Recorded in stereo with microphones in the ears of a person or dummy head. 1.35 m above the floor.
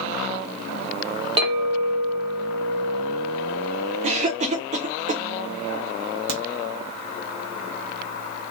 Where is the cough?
40° right (ahead or behind), 0.6 m.